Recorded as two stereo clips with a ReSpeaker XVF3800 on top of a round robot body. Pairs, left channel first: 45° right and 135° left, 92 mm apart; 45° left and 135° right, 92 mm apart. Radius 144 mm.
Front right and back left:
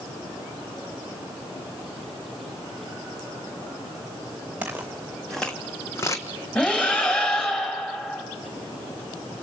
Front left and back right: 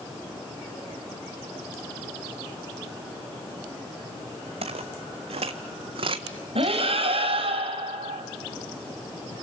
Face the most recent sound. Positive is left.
turn(degrees=-125)